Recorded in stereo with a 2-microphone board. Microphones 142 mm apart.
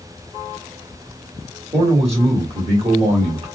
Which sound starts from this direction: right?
A man speaking, at 1.7 s.